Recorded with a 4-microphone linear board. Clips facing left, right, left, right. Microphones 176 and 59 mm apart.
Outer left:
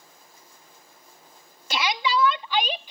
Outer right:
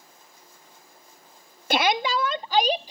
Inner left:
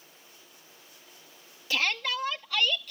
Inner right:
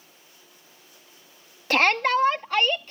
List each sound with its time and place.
1.7 s a shout: 55° right (ahead or behind); by 2.9 s 35° right (ahead or behind)